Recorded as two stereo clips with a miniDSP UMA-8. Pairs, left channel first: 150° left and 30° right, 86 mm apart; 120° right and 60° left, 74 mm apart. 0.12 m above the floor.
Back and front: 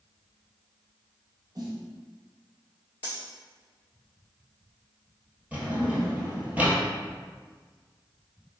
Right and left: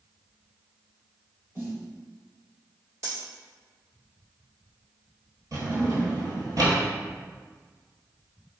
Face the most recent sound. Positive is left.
turn(degrees=40)